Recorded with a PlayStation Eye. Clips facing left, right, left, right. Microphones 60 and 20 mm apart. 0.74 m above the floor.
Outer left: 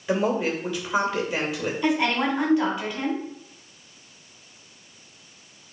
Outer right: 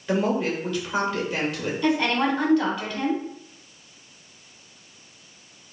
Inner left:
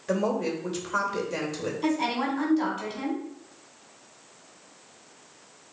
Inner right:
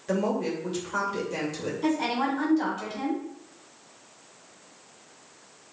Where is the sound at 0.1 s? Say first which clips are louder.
Even, even; 5° left (ahead or behind), 2.5 m.